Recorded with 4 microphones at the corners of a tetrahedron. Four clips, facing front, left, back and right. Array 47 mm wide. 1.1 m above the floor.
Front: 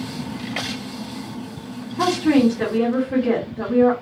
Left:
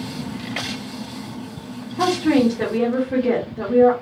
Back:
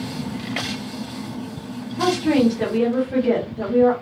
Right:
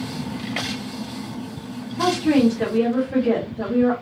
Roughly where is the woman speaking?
Ahead left.